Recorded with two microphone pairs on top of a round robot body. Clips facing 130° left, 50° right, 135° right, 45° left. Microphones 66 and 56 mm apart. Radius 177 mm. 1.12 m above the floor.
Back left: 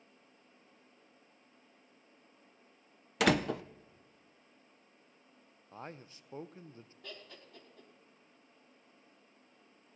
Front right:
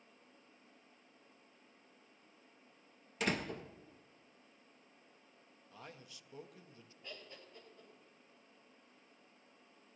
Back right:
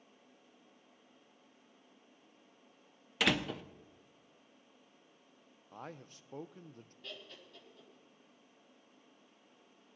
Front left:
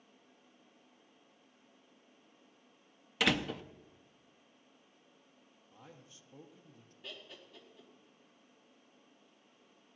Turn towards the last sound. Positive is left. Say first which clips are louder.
# back left 1 dB, front left 1 dB
turn(degrees=125)